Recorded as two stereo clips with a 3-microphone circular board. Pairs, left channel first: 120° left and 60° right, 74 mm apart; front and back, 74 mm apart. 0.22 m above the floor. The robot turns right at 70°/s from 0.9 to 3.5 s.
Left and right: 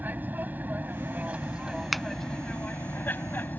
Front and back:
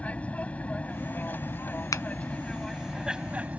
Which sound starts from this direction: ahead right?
An aircraft, at 0.0 s.